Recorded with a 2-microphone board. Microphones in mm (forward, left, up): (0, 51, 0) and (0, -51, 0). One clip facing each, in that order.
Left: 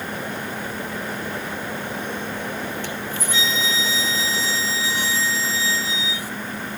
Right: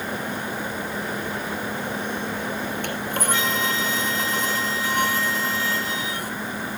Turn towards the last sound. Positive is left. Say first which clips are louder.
# right 3 dB
turn(degrees=-60)  # may be behind; listen again after turning